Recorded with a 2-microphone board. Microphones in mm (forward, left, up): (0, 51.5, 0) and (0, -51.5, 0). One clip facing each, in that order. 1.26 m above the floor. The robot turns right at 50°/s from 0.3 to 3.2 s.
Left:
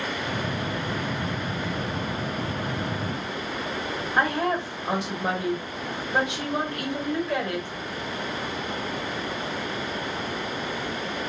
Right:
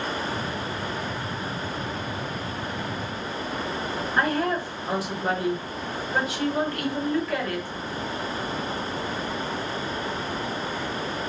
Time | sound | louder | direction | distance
4.2 | a woman speaking | even | 25° left (ahead or behind) | 1.1 m